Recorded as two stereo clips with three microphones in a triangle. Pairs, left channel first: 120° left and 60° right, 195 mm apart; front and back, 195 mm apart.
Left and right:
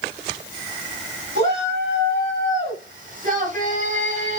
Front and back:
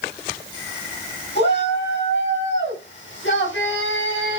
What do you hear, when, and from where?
1.4 s a shout: 25° right, 6.5 m; by 4.4 s 5° right, 8 m